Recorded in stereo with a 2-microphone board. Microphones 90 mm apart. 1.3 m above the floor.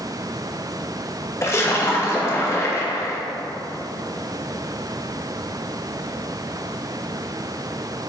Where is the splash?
30° left (ahead or behind), 0.6 m.